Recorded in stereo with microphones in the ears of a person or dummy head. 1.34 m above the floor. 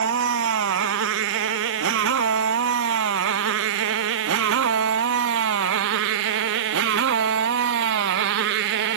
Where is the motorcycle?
80° right; by 9.0 s 70° right (ahead or behind).